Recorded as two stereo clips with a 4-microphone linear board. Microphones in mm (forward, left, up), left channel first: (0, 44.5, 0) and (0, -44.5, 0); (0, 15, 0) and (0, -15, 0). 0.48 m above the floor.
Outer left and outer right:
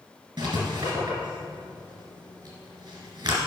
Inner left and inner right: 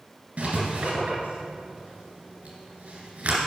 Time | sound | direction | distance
0.4 | writing | 60° right (ahead or behind) | 2.5 m